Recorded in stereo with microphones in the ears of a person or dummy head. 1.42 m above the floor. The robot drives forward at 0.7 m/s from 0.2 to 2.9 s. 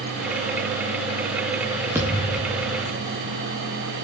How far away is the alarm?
No alarm in this recording.